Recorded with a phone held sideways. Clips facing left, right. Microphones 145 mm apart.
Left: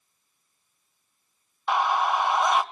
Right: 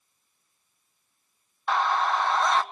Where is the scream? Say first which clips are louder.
Left 1 dB; 15° left (ahead or behind), 0.7 m.